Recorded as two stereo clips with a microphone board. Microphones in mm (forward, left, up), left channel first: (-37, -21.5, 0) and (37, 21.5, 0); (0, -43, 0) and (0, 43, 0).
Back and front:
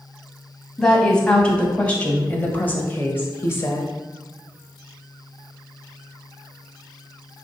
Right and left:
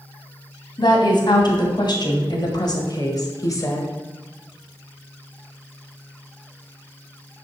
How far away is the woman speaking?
About 2.5 m.